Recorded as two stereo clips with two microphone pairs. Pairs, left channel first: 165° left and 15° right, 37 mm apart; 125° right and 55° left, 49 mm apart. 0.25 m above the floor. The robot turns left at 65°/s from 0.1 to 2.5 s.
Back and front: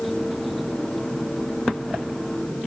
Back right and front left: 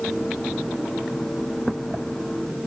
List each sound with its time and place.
Only background noise.